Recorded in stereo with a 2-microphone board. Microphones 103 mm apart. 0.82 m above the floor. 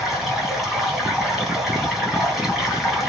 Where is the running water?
5° right (ahead or behind), 3.5 m.